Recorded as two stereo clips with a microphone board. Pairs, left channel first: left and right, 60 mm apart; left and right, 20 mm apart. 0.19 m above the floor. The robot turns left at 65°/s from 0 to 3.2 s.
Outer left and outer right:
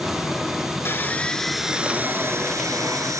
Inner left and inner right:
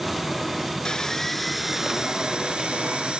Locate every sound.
0.8 s sawing: 45° left, 1.0 m; by 3.2 s 110° right, 1.0 m